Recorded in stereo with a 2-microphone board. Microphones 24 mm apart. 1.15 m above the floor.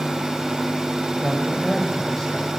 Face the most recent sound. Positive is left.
turn(degrees=25)  # may be behind; listen again after turning